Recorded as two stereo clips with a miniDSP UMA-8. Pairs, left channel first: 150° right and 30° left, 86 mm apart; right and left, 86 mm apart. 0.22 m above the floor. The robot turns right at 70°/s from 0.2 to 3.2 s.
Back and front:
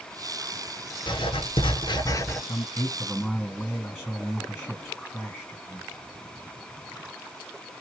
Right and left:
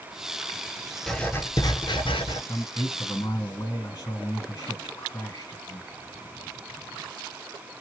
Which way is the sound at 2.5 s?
125° right.